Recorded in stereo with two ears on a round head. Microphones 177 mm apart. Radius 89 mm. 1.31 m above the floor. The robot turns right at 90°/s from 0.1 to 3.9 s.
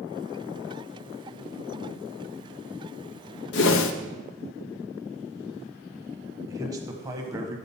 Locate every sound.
3.5 s a whoosh: 65° left, 0.6 m; by 3.9 s 95° left, 0.6 m
6.5 s a man speaking: 20° right (ahead or behind), 1.0 m